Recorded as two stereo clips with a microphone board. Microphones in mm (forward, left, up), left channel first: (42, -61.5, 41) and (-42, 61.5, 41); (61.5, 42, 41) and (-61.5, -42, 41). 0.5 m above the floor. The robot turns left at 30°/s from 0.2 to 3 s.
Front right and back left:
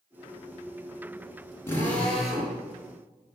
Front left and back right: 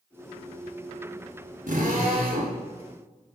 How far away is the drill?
About 5 m.